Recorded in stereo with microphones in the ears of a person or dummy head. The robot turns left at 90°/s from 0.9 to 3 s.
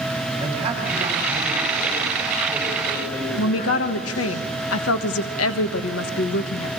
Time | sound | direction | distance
0.4 | a man speaking | 40° right | 8 m
3.4 | a woman speaking | 75° left (ahead or behind) | 1.4 m